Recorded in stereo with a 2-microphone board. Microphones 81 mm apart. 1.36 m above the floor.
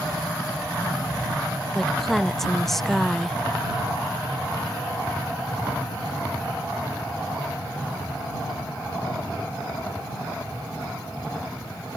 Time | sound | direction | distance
1.8 | a woman speaking | 5° left (ahead or behind) | ?